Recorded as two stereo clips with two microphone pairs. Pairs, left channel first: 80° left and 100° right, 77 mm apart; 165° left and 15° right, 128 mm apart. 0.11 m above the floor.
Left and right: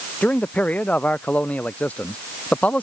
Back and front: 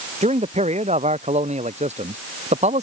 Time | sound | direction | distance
0.2 | a man speaking | 10° left | ?